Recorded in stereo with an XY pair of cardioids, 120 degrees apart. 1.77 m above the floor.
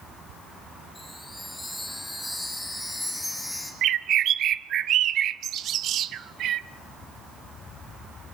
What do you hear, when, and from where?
0.9 s a chime: straight ahead, 7.5 m
3.8 s a bird: 60° right, 1.0 m